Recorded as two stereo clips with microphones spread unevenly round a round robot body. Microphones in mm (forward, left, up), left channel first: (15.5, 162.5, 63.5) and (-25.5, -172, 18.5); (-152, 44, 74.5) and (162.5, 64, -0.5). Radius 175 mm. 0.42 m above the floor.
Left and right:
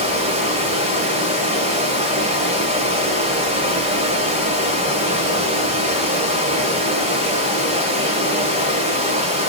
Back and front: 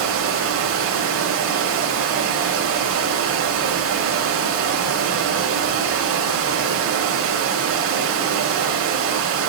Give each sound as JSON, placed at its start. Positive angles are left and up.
{"t": 0.0, "sound": "running water", "azimuth_deg": -30, "distance_m": 1.6}